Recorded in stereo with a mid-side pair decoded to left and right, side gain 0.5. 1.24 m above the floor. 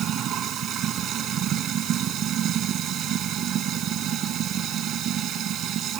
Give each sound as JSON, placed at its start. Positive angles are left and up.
{"t": 0.0, "sound": "running water", "azimuth_deg": -60}